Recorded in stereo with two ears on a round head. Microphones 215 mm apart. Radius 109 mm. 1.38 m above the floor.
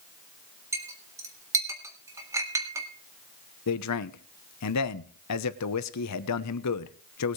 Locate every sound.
0.7 s a clink: 10° right (ahead or behind), 1.6 m
3.7 s a man speaking: 75° left (ahead or behind), 1.0 m